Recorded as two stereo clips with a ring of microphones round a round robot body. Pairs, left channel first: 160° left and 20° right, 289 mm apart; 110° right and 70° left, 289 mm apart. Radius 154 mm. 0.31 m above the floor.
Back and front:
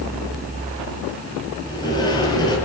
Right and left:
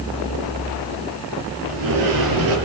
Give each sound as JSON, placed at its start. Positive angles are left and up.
{"t": 1.6, "sound": "a sliding door", "azimuth_deg": 80, "distance_m": 6.5}